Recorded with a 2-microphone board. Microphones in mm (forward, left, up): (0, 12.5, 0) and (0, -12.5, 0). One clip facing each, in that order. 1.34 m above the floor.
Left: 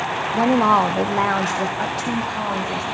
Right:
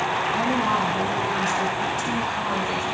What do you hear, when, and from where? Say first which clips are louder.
0.3 s a woman speaking: left 10 dB; 70° left (ahead or behind), 0.9 m; by 2.8 s 30° left (ahead or behind), 1.4 m